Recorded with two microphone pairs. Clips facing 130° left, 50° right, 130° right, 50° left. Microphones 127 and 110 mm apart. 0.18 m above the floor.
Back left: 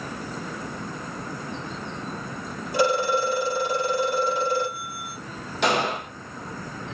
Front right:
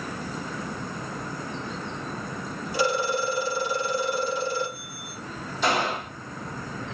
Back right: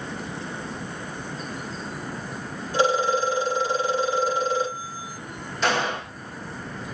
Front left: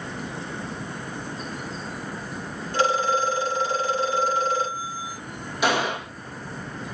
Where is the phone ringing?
150° left, 3.5 m.